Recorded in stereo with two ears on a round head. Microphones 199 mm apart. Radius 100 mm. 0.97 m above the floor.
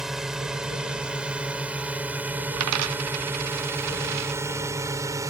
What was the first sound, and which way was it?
A drone, centre (ahead or behind).